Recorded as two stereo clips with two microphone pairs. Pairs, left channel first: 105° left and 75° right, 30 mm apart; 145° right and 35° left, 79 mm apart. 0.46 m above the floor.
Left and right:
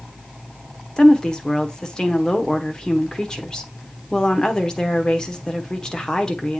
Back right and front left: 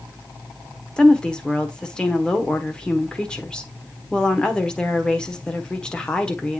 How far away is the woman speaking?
About 1.1 m.